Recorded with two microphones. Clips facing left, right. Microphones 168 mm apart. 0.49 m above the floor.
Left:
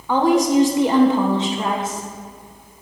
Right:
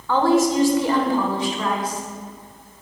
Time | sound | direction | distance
0.1 | a woman speaking | 15° left (ahead or behind) | 1.6 m